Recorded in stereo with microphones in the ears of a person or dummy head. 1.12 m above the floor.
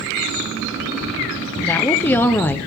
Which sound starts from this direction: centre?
A woman speaking, at 1.6 s.